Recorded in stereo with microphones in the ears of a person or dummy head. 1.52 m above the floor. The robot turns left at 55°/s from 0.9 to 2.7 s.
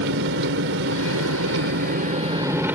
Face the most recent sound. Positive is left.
turn(degrees=-170)